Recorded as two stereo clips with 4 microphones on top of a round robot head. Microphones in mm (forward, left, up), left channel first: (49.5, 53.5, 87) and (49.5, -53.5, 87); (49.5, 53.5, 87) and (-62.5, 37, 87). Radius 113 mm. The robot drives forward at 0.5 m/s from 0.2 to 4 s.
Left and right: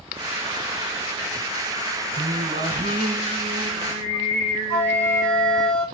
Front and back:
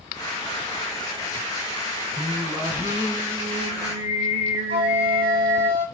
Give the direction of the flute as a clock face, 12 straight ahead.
7 o'clock.